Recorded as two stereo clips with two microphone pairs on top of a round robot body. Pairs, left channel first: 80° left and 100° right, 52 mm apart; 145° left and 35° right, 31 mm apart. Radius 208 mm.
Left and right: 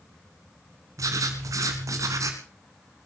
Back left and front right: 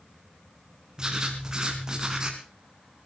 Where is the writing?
105° right, 1.8 m.